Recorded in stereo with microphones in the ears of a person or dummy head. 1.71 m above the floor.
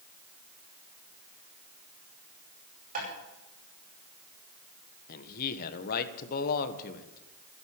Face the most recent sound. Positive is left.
turn(degrees=55)  # may be behind; listen again after turning